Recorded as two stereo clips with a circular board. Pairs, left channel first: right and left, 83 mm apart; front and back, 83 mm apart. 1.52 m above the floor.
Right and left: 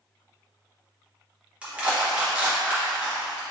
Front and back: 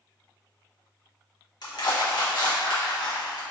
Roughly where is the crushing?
Ahead.